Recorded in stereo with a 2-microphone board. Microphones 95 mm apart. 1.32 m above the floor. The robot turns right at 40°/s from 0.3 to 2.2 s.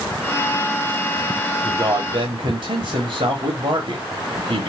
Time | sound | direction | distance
1.6 | a man speaking | 55° right (ahead or behind) | 1.4 m